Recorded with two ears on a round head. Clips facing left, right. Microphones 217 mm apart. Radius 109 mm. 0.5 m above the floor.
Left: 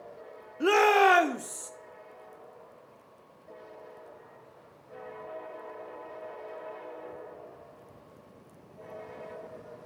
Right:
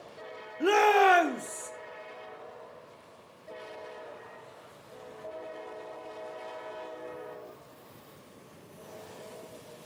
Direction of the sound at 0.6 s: 5° left (ahead or behind).